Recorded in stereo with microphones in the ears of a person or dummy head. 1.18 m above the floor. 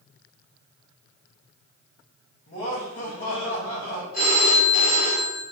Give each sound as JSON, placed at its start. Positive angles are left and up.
{"t": 2.5, "sound": "laughter", "side_deg": 70, "distance_m": 1.6}
{"t": 4.1, "sound": "a phone ringing", "side_deg": 55, "distance_m": 1.2}